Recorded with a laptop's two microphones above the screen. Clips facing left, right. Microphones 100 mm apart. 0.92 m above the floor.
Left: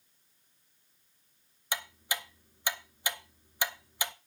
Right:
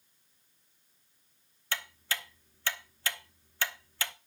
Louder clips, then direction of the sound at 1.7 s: Left 1 dB; 15° left (ahead or behind).